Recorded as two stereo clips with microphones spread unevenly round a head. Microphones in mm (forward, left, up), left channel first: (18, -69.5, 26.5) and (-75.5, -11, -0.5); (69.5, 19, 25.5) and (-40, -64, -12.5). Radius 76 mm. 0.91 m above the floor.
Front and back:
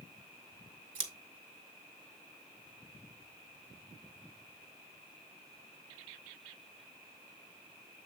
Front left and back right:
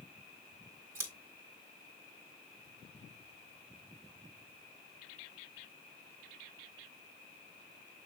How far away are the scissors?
About 1.5 m.